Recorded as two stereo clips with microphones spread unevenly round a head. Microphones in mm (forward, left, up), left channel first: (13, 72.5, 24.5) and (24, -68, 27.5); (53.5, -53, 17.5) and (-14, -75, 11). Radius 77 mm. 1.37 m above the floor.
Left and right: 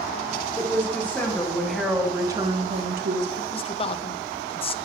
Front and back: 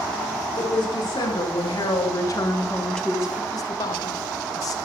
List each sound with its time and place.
0.6 s a woman speaking: 20° left, 3.5 m; by 3.4 s 90° right, 1.6 m
3.5 s a man speaking: 55° left, 0.6 m